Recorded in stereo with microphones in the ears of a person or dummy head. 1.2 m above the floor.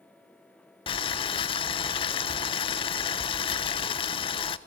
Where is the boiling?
25° left (ahead or behind), 0.8 m.